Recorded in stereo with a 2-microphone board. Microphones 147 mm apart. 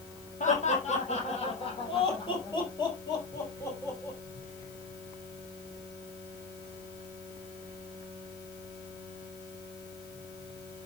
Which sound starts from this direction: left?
Laughter, at 0.4 s.